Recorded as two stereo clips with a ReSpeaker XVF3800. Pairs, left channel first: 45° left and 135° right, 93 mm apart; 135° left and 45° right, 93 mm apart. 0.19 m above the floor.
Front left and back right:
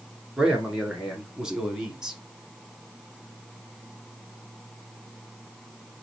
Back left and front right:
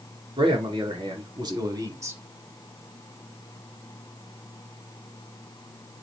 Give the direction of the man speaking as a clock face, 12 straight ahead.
2 o'clock.